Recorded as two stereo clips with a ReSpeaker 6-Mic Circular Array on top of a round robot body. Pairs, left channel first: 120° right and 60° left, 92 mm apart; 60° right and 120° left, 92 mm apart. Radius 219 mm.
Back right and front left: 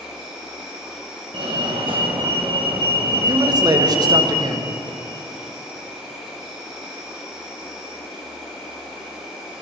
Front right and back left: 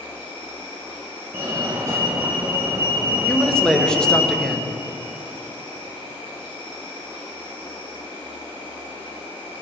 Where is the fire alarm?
65° left, 2.5 m.